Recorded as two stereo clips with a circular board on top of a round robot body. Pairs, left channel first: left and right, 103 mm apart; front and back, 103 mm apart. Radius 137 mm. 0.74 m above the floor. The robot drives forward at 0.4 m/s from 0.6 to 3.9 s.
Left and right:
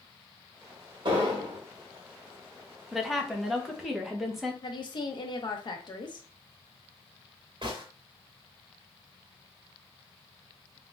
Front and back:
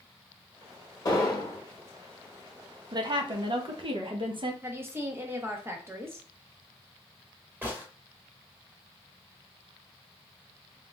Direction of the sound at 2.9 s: Straight behind.